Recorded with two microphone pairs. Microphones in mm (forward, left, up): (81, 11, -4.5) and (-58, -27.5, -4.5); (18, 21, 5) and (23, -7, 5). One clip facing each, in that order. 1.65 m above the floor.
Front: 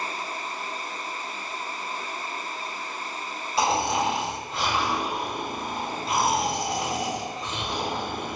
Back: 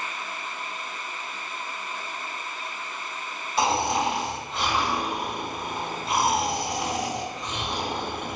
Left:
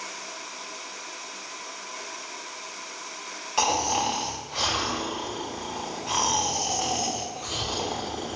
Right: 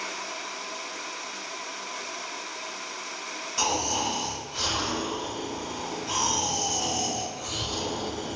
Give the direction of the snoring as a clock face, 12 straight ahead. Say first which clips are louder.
Even, left 3 dB; 9 o'clock.